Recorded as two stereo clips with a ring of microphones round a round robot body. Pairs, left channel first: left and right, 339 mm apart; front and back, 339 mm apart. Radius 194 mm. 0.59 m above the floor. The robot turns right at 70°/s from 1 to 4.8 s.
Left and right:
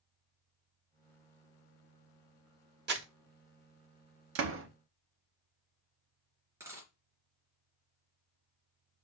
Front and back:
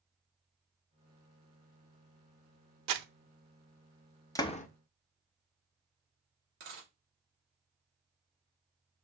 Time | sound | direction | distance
2.9 | crumpling | 150° right | 1.0 m
4.3 | a door slam | 75° right | 0.8 m
6.6 | a dropped coin | 175° right | 3.5 m